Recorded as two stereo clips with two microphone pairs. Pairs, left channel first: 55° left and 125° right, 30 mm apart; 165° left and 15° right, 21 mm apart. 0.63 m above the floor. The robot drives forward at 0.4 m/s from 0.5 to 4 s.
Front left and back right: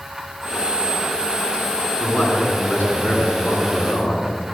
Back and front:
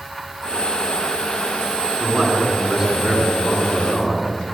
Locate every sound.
2.0 s a man speaking: 50° left, 8.5 m; by 4.3 s 55° left, 8 m